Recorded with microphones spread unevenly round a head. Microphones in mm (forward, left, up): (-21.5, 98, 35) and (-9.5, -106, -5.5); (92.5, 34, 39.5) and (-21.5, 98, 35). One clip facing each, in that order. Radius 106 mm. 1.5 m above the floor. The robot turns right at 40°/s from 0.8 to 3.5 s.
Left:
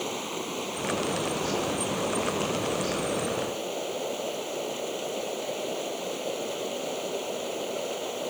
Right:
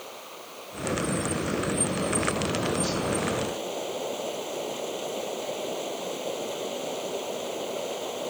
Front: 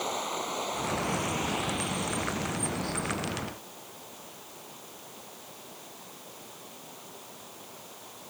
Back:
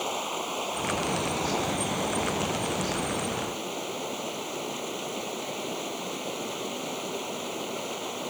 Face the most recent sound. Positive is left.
turn(degrees=180)